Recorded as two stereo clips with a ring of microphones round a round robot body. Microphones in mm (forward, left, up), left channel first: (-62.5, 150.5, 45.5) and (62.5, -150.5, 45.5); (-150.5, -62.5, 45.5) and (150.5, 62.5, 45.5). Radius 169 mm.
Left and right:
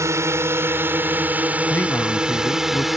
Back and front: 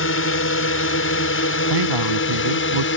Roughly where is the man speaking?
Ahead left.